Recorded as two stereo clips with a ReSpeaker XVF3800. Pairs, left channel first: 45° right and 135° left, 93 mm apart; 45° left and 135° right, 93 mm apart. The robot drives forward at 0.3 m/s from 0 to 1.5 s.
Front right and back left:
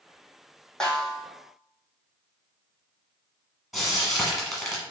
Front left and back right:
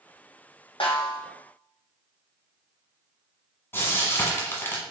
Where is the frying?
45° left, 1.1 m.